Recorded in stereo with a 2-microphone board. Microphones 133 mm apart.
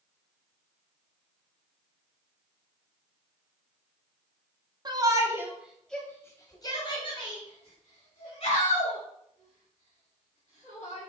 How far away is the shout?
About 1.3 m.